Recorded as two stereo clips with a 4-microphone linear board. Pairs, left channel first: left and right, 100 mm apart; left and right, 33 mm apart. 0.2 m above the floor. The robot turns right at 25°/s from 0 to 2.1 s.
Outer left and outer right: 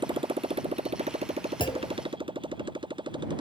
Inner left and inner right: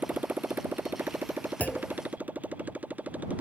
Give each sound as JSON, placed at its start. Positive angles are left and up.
{"t": 0.0, "sound": "a motorcycle", "side_deg": -50}
{"t": 1.6, "sound": "a clunk", "side_deg": 50}